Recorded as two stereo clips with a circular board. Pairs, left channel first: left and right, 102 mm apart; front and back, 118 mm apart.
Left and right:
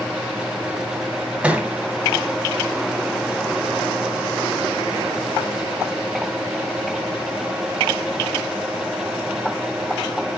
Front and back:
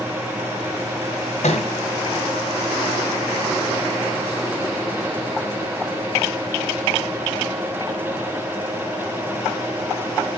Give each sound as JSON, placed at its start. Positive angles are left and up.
{"t": 1.4, "sound": "a thud", "azimuth_deg": -10, "distance_m": 1.7}